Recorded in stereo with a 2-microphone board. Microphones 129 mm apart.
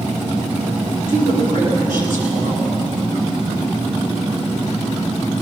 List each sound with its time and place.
1.1 s a woman speaking: 75° right (ahead or behind), 8 m